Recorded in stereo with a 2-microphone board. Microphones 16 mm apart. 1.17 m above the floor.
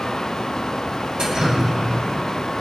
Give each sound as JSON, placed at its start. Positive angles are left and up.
{"t": 1.2, "sound": "dripping", "side_deg": -65, "distance_m": 6.5}